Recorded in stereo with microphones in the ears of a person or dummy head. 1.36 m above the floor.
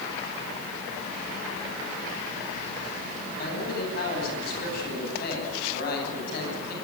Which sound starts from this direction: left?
A man speaking, at 3.4 s.